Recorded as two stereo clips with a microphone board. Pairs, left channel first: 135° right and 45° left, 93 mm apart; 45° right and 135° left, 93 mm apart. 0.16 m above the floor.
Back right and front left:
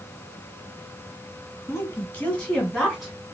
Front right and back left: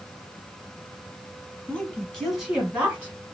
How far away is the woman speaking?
About 1.4 m.